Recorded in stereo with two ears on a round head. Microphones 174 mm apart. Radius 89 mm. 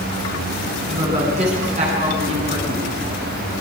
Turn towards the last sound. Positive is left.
turn(degrees=-35)  # may be behind; listen again after turning